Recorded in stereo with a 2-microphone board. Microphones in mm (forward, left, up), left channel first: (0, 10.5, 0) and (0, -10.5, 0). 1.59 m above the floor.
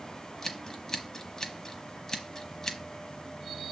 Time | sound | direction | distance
0.4 | scissors | 25° left (ahead or behind) | 1.0 m